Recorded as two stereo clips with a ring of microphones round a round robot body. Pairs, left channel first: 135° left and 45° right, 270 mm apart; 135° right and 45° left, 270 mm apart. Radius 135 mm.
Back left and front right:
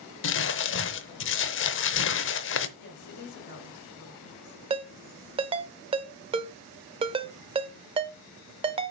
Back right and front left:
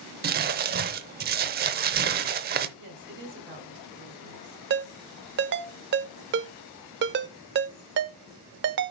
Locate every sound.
0.2 s crumpling: 95° left, 0.7 m
2.8 s a woman speaking: 90° left, 2 m
4.7 s a ringtone: 15° left, 0.6 m